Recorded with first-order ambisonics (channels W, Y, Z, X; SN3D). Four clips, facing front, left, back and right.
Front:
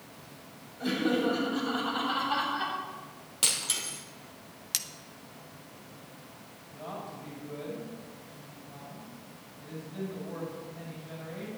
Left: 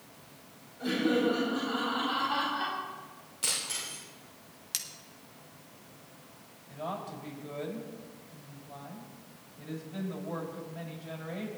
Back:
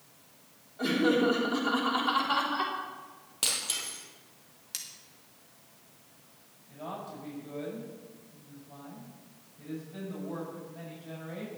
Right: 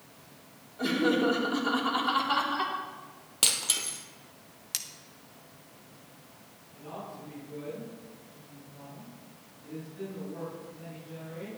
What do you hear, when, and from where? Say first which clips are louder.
0.8 s laughter: right 2 dB, back 2 dB; 130° right, 3.5 m
3.4 s breaking glass: right 6 dB, front 2 dB; 85° right, 2.5 m
4.7 s cutlery clinking: right 1 dB, front 7 dB; 10° right, 0.7 m
6.7 s a woman speaking: left 5 dB, back 1 dB; 100° left, 6.5 m